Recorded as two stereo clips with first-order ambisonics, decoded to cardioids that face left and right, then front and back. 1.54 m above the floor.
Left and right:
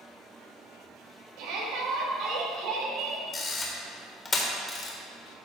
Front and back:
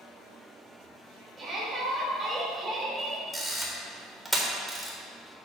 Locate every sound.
1.4 s a shout: 105° right, 2.5 m
3.3 s a camera shutter: 100° left, 1.2 m